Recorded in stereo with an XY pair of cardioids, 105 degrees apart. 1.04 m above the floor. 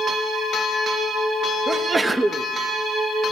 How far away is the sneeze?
About 1.1 m.